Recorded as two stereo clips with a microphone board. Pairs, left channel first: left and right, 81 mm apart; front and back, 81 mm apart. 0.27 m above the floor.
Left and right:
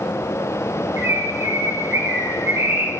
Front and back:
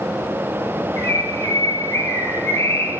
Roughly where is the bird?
Ahead right.